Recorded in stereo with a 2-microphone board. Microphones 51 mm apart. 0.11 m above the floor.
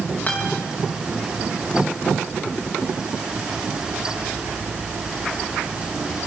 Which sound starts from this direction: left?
A guitar, at 0.3 s.